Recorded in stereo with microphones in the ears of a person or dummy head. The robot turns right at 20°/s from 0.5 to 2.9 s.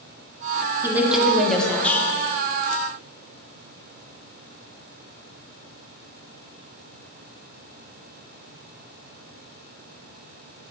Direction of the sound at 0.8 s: 15° right (ahead or behind).